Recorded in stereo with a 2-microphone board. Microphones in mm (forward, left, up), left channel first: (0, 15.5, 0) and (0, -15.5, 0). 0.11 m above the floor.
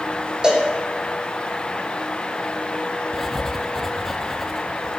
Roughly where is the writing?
Centre.